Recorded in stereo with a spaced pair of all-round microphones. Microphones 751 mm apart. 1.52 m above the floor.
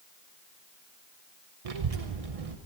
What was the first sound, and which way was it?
A child speaking, 50° right (ahead or behind).